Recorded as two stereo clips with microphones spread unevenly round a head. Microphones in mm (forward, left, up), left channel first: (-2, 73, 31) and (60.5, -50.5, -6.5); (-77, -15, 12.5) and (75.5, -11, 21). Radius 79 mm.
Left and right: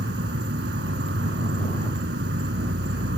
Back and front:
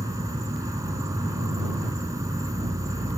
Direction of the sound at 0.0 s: 70° right.